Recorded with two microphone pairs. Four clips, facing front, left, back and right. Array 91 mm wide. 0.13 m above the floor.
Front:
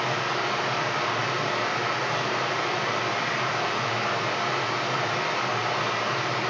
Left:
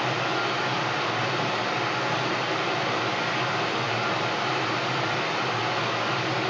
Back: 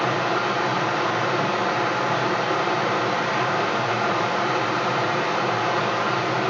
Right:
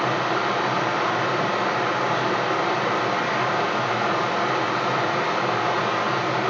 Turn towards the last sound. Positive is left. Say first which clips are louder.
# right 4 dB, back 5 dB
turn(degrees=-140)